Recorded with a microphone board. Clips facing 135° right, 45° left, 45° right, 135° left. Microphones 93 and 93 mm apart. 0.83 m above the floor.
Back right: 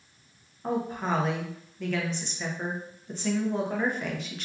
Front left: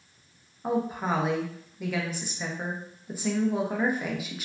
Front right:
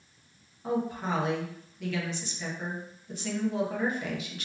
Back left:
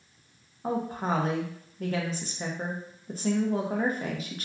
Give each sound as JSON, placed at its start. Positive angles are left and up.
{"t": 0.6, "sound": "a woman speaking", "azimuth_deg": 120, "distance_m": 0.7}